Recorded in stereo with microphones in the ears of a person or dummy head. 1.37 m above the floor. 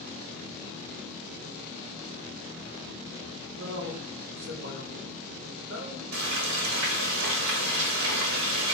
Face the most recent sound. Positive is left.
turn(degrees=-60)  # may be behind; listen again after turning